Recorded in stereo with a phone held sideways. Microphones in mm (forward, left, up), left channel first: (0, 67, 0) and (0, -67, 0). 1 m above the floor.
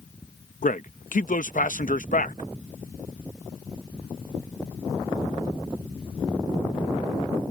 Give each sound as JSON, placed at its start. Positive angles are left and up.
{"t": 0.6, "sound": "a man speaking", "side_deg": 70}